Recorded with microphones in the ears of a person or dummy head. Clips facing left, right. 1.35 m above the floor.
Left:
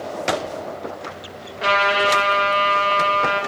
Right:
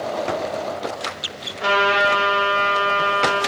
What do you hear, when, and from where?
1.6 s a trumpet: 20° left (ahead or behind), 1.1 m